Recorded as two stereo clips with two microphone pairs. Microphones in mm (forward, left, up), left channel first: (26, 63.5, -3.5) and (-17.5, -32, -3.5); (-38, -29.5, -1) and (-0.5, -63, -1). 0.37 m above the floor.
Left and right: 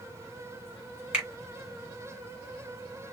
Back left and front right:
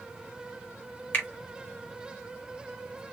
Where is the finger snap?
175° left, 1.5 m.